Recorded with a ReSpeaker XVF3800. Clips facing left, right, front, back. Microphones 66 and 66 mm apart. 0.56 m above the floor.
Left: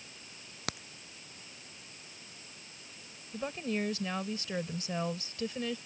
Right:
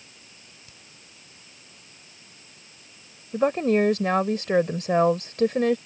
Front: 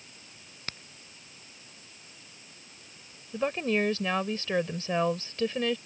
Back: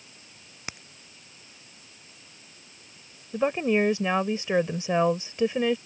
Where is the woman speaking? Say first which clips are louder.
Right 14 dB, back 4 dB; 105° right.